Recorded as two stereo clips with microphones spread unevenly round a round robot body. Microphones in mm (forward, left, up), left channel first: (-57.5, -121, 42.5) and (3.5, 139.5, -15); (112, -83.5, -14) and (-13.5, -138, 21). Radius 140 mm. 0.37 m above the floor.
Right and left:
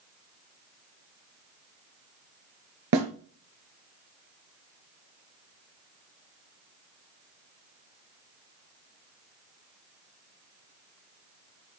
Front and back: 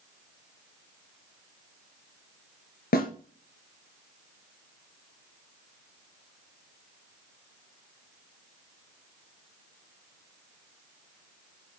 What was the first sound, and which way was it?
A snare drum, 35° left.